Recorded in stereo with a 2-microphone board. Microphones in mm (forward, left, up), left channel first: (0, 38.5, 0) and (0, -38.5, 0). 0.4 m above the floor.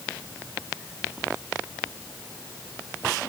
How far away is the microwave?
I don't hear a microwave.